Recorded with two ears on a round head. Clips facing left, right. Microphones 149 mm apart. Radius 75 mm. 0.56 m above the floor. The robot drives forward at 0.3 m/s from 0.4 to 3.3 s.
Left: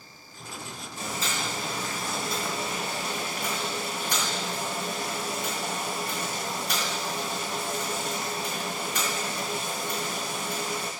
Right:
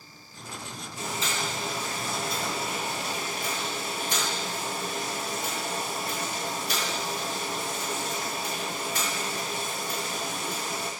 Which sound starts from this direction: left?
Boiling, at 1.0 s.